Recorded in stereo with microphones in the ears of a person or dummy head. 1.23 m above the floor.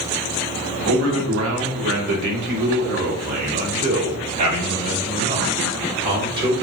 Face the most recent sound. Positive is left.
turn(degrees=-25)  # may be behind; listen again after turning